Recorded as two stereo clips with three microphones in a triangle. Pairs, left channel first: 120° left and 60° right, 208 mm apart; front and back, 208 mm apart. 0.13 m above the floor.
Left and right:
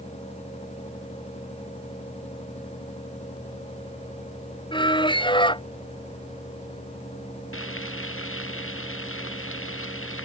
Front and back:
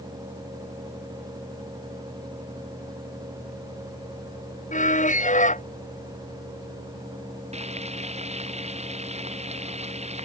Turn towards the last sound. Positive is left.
turn(degrees=120)